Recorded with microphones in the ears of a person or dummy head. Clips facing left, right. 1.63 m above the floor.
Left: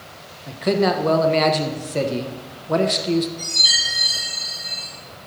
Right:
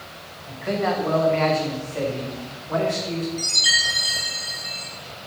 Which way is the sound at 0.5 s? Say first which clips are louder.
Left 5 dB; 50° left (ahead or behind).